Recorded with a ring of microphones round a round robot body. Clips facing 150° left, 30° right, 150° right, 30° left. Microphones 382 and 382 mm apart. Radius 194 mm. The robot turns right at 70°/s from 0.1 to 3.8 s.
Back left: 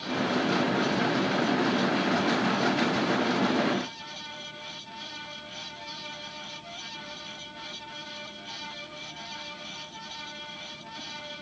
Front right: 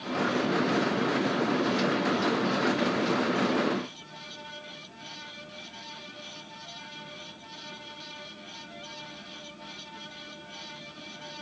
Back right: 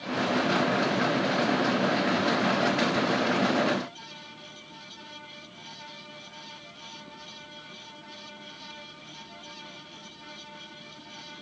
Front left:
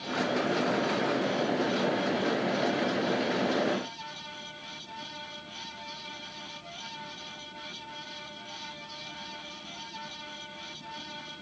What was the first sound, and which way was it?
Only background noise.